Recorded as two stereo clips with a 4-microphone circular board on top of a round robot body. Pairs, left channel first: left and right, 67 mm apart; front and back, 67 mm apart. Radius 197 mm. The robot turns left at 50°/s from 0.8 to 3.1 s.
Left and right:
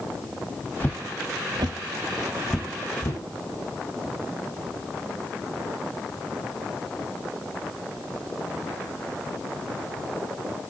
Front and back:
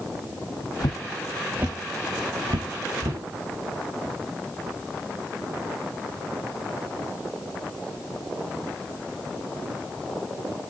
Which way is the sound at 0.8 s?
25° left.